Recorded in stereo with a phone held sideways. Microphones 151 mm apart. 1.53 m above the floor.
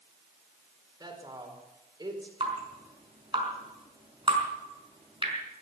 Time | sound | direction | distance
1.0 | a woman speaking | 30° right (ahead or behind) | 4.5 m
2.4 | dripping | 35° right (ahead or behind) | 5 m